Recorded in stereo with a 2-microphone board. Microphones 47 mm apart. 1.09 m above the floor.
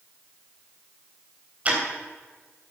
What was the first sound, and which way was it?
Ticking, 35° right (ahead or behind).